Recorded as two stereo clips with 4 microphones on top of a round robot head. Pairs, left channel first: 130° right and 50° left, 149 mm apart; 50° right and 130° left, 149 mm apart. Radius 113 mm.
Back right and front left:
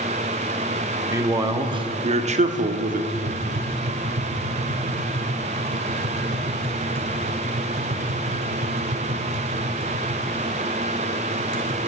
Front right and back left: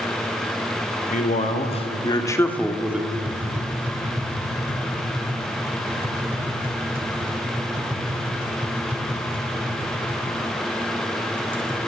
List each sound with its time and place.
1.1 s a man speaking: 20° right, 2 m; by 3.0 s 55° left, 1.4 m
3.1 s tapping: 55° left, 3.5 m